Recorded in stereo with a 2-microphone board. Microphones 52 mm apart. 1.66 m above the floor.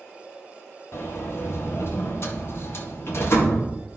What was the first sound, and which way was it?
A sliding door, 55° left (ahead or behind).